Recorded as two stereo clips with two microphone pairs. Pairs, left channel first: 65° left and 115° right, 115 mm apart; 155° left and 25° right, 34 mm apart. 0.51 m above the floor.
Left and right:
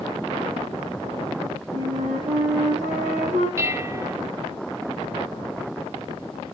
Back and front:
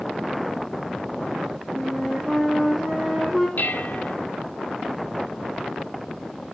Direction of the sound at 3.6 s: Straight behind.